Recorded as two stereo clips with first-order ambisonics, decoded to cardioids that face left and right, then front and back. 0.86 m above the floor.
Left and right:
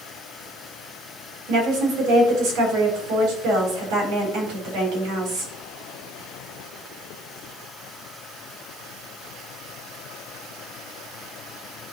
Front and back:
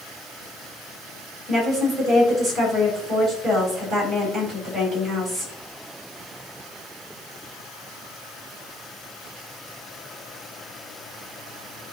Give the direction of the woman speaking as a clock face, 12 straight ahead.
3 o'clock.